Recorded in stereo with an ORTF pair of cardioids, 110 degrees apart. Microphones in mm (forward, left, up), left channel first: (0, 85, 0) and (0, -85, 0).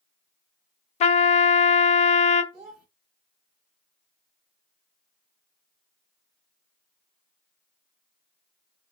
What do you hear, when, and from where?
1.0 s a trumpet: 40° left, 0.5 m
2.5 s a child speaking: 40° right, 0.8 m